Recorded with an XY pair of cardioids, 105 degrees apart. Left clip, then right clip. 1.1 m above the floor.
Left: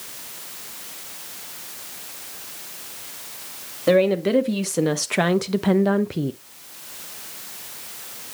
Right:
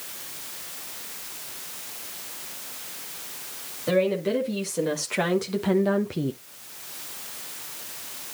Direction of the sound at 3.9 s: 55° left.